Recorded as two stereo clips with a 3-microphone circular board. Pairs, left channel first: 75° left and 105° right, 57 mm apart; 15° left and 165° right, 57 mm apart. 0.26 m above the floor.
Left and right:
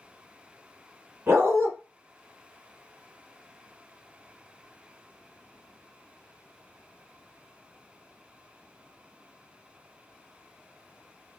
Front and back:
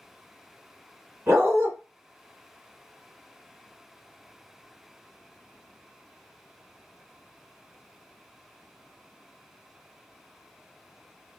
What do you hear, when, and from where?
1.3 s a dog barking: 140° right, 1.0 m